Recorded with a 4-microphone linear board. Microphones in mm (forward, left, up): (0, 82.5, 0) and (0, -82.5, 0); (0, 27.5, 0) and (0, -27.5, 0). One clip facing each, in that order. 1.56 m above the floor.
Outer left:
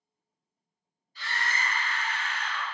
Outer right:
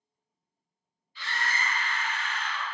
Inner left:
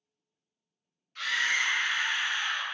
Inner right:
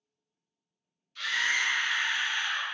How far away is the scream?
About 0.6 m.